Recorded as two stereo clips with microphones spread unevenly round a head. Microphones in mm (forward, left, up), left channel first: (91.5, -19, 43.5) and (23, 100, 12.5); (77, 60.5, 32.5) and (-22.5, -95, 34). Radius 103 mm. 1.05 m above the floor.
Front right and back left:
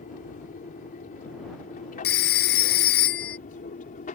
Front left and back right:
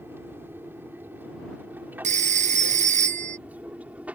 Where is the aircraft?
45° right; by 4.2 s 40° right.